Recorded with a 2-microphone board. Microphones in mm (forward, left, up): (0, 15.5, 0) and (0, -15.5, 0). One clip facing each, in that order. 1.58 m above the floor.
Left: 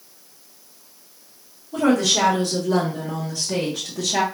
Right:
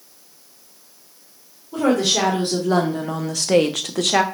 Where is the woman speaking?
25° right (ahead or behind), 1.5 m; by 4.2 s 50° right (ahead or behind), 0.7 m.